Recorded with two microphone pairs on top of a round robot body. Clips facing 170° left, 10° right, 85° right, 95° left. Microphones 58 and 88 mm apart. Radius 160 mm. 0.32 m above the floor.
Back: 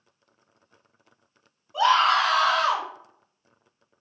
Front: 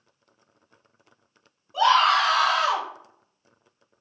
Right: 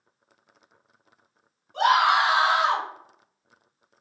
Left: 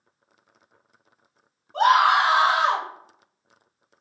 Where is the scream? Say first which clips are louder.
Front 1 dB, left 2 dB; 80° left, 1.8 m; by 2.9 s 50° left, 2 m.